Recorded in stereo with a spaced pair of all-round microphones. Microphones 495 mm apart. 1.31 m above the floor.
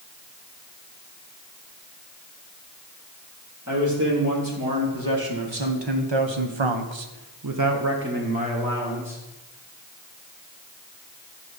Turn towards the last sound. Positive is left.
turn(degrees=-5)  # may be behind; listen again after turning